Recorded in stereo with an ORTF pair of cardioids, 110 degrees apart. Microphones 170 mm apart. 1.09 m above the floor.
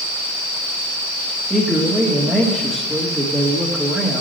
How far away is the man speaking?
About 1.6 m.